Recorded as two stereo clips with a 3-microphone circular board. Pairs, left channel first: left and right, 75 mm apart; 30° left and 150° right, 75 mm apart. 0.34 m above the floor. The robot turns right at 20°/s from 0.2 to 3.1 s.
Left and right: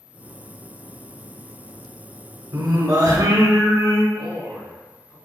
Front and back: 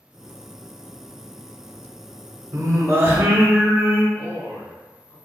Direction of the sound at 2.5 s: 110° right.